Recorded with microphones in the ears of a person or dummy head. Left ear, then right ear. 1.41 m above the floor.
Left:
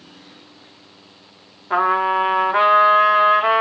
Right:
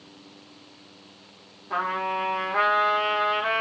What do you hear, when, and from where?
1.7 s a trumpet: 45° left (ahead or behind), 0.6 m